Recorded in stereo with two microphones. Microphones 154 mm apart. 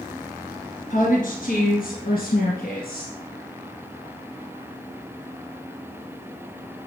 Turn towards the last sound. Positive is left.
turn(degrees=70)  # may be behind; listen again after turning